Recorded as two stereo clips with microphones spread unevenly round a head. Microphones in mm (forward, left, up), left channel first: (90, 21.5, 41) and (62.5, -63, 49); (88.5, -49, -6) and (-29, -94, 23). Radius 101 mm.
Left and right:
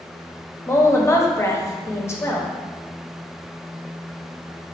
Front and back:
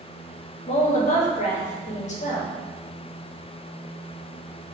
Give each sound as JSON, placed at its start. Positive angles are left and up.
{"t": 0.7, "sound": "a woman speaking", "azimuth_deg": 15, "distance_m": 0.9}